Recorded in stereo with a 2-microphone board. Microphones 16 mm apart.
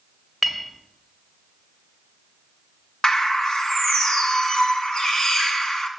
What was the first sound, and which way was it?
A clink, 5° left (ahead or behind).